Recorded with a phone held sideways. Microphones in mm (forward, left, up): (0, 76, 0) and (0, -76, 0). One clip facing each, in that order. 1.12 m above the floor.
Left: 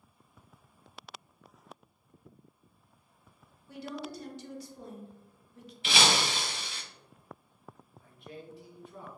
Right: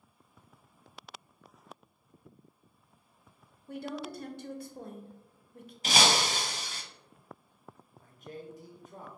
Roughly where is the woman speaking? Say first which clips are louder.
Right 2 dB; right.